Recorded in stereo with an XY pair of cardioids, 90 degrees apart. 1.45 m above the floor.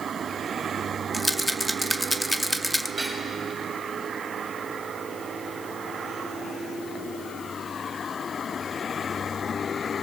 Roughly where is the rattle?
Ahead.